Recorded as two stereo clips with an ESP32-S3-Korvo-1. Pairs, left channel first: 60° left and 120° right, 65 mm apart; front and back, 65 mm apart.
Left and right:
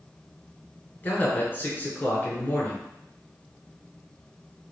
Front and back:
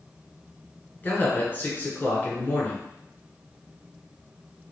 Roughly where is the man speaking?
Ahead left.